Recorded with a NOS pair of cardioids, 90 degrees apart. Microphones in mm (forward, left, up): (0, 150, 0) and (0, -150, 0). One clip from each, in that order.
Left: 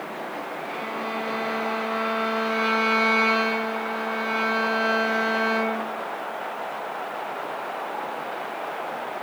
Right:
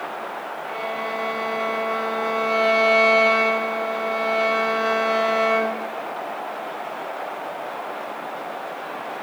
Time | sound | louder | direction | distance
0.7 | a violin | right 4 dB | 25° right | 1.5 m